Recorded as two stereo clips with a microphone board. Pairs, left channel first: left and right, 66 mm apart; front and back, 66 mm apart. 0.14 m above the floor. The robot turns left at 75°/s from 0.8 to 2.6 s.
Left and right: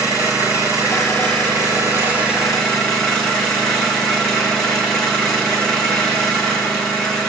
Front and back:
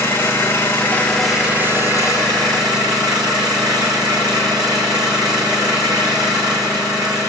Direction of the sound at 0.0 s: 55° right.